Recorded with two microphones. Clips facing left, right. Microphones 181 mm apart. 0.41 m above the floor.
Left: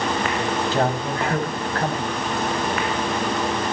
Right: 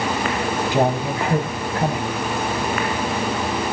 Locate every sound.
0.7 s a man speaking: 15° right (ahead or behind), 2.5 m